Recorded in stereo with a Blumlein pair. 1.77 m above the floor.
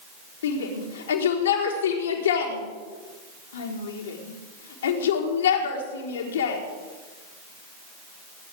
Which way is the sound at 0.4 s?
60° left.